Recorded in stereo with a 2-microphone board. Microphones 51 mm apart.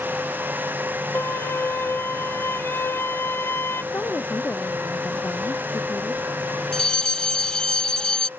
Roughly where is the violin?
Left.